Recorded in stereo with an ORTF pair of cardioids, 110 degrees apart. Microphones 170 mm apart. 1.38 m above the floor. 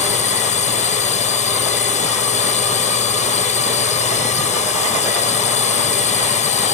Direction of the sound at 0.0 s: 45° left.